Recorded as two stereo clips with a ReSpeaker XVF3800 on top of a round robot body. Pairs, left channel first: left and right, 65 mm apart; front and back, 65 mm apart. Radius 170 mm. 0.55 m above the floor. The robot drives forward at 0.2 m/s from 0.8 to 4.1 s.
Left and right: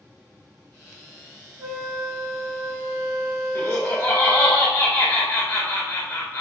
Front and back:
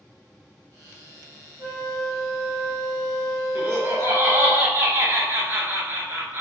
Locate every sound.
1.6 s a flute: 115° right, 1.9 m; by 4.5 s 125° right, 2 m
3.5 s laughter: 140° left, 1.1 m; by 6.4 s 145° left, 1.2 m